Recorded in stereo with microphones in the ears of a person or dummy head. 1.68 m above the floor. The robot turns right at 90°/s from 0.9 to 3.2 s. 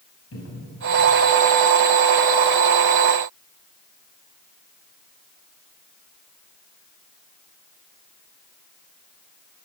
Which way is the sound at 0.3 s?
80° left.